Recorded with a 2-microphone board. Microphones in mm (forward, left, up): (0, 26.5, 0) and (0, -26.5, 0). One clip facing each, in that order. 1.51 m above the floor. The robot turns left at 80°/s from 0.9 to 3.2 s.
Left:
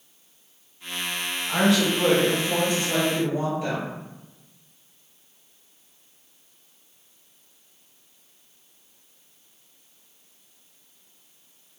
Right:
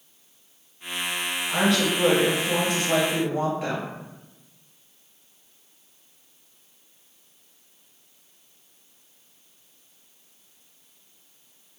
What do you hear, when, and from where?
1.5 s a woman speaking: 30° left, 1.3 m; by 3.9 s 110° right, 1.3 m